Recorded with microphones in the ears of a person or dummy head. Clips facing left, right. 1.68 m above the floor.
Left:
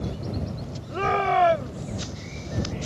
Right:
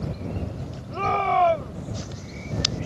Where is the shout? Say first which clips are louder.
Even; 20° left (ahead or behind); by 2.0 s 25° left (ahead or behind).